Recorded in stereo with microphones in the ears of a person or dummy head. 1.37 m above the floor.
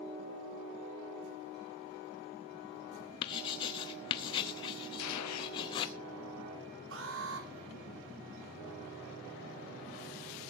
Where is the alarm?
70° right (ahead or behind), 4 m.